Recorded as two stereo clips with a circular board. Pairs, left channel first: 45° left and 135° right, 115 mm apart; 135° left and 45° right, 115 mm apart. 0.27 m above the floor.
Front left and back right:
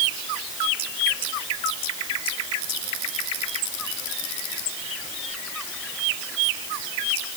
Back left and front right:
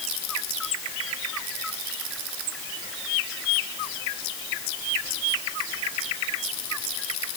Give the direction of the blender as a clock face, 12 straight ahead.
No blender in this recording.